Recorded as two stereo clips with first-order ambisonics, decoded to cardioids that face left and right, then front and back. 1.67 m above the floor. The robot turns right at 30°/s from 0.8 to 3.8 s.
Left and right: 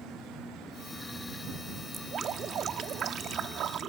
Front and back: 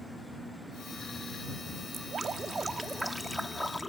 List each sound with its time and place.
1.9 s dripping: 135° right; by 3.9 s 80° right